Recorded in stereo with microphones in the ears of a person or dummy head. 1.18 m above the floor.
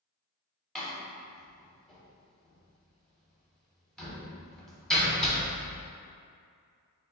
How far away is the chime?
I don't hear a chime.